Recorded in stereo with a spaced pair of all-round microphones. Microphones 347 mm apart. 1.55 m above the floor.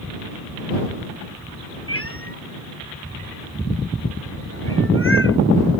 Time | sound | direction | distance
1.9 | a cat meowing | 40° left (ahead or behind) | ?